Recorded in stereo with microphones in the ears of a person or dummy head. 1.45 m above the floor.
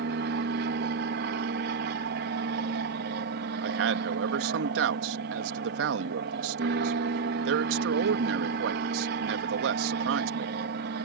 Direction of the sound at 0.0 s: 55° right (ahead or behind).